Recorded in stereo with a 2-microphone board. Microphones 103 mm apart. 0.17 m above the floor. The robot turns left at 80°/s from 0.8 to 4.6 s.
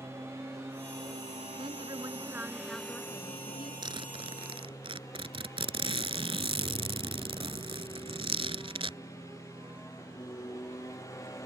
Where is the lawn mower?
25° right; by 11.5 s 30° left.